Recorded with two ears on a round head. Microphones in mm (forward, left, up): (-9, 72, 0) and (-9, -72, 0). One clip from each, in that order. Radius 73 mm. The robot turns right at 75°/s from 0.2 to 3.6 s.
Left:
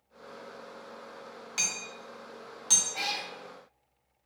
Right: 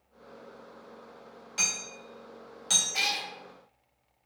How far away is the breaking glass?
No breaking glass in this recording.